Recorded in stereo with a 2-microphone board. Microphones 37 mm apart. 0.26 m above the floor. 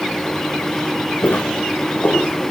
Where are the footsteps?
75° left (ahead or behind), 1.4 m; by 2.3 s 70° left (ahead or behind), 2 m.